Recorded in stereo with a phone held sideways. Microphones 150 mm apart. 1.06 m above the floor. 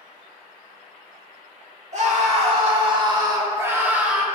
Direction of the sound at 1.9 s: 50° right (ahead or behind).